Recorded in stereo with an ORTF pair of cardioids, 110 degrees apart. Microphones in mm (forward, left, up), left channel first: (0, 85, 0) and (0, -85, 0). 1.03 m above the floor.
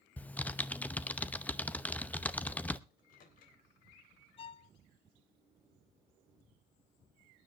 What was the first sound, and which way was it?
Typing on a keyboard, 10° left.